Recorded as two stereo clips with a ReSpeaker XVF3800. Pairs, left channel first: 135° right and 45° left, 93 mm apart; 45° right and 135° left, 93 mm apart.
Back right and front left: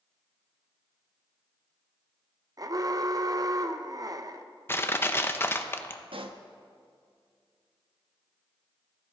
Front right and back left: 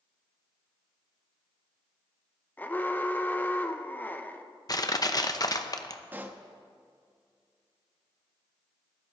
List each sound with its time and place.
2.6 s an alarm: 20° left, 0.7 m
4.7 s crushing: 75° right, 0.7 m
6.1 s a pop: 65° left, 0.9 m